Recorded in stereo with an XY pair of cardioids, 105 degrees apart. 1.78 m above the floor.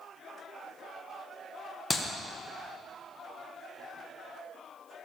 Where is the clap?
20° left, 1.5 m.